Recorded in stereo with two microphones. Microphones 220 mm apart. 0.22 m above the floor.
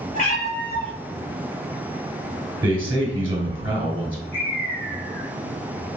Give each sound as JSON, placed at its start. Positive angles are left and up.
{"t": 0.1, "sound": "a cat meowing", "side_deg": 40, "distance_m": 1.1}
{"t": 2.6, "sound": "a man speaking", "side_deg": -10, "distance_m": 1.0}
{"t": 4.3, "sound": "a bird", "side_deg": 55, "distance_m": 1.4}